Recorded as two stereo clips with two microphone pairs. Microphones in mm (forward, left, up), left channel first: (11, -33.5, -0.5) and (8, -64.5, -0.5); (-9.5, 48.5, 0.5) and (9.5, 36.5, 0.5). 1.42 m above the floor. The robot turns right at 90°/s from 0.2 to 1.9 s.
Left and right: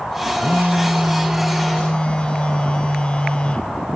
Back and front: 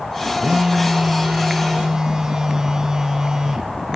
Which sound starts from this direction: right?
A phone buzzing, at 0.4 s.